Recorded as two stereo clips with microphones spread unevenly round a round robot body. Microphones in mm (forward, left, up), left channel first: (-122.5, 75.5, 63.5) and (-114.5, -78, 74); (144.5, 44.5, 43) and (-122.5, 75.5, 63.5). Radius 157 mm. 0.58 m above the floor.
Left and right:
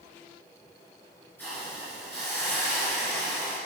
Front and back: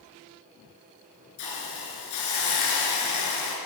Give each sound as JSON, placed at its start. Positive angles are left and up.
{"t": 1.4, "sound": "a hiss", "azimuth_deg": 10, "distance_m": 3.0}